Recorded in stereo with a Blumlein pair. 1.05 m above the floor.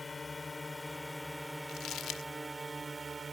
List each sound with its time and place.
0.0 s a drone: 15° left; by 3.3 s 15° right
1.7 s crumpling: 30° left